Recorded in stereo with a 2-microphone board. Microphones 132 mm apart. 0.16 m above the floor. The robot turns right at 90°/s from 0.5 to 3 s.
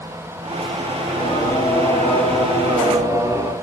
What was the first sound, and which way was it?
Singing, 60° left.